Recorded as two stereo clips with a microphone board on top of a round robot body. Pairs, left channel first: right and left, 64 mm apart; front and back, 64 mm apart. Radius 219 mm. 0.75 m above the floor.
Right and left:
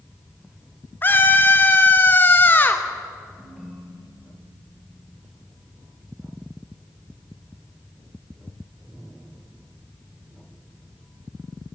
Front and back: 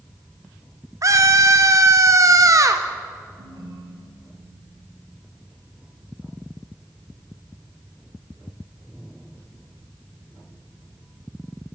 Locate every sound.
1.0 s a scream: 150° right, 1.4 m
3.4 s a ringtone: 170° left, 3 m